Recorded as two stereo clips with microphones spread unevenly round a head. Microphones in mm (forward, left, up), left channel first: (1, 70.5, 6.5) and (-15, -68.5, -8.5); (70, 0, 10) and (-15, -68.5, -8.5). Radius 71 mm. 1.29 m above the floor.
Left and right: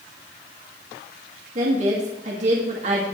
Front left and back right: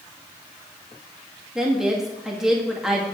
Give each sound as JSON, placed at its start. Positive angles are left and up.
{"t": 1.6, "sound": "a woman speaking", "azimuth_deg": -55, "distance_m": 2.0}